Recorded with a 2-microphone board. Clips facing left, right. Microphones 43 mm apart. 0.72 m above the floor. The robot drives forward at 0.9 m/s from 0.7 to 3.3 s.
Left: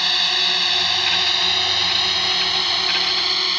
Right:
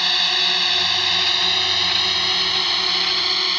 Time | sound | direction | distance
0.0 | a drone | centre (ahead or behind) | ?